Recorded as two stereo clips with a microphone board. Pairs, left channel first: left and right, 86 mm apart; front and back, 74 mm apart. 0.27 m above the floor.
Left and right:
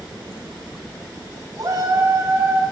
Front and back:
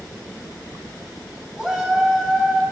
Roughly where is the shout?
Right.